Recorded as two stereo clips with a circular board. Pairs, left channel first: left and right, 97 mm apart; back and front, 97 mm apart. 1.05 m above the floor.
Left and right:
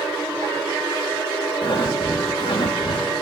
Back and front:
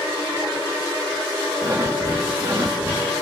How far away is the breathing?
About 1.4 m.